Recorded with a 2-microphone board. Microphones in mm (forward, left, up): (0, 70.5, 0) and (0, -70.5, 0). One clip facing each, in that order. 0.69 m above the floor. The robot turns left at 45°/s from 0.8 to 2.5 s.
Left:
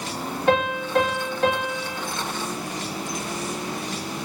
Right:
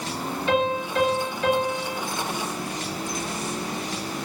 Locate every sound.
0.5 s a piano: 115° left, 1.3 m; by 2.0 s 60° left, 1.3 m